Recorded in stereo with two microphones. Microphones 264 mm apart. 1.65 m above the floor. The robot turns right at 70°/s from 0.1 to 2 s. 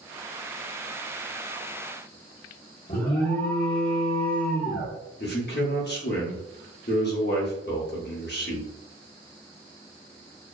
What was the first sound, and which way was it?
An alarm, 35° left (ahead or behind).